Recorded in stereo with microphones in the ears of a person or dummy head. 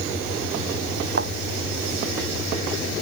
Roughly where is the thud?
Right.